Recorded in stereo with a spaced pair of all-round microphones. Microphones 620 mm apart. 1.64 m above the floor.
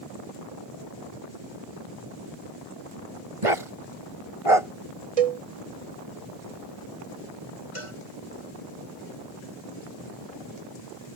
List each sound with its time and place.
3.4 s a dog barking: 60° right (ahead or behind)
5.2 s a cowbell: 70° right (ahead or behind)
7.8 s a cowbell: 55° left (ahead or behind)